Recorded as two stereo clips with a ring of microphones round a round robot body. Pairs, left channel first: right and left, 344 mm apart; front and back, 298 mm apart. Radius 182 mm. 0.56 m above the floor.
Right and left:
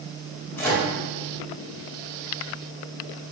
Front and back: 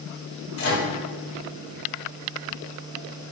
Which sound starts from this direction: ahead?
A microwave, at 0.6 s.